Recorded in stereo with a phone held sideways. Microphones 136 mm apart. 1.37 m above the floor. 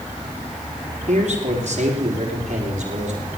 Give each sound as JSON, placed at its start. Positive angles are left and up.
{"t": 1.1, "sound": "a man speaking", "side_deg": -55, "distance_m": 3.0}